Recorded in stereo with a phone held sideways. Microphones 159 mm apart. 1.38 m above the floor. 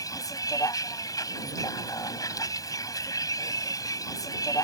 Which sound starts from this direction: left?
A vehicle, at 0.0 s.